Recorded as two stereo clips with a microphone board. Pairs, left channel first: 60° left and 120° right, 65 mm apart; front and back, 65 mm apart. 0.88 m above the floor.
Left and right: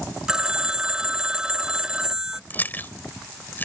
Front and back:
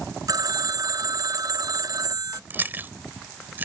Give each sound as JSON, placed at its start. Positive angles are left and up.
{"t": 0.3, "sound": "a phone ringing", "azimuth_deg": 160}
{"t": 2.5, "sound": "chewing", "azimuth_deg": 120}